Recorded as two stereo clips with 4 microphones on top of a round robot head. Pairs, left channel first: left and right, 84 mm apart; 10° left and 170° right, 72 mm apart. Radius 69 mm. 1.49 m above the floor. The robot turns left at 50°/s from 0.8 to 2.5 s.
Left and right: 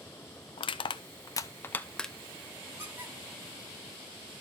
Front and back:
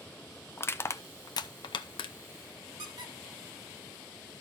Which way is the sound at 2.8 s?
155° right.